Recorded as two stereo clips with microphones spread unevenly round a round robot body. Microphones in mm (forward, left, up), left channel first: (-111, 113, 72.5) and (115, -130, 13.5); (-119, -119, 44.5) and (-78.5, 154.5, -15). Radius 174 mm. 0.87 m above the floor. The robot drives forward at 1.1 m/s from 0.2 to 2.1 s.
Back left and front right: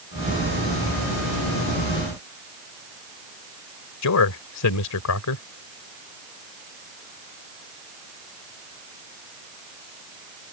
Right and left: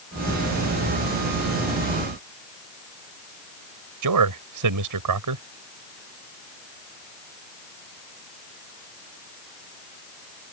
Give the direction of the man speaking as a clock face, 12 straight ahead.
9 o'clock.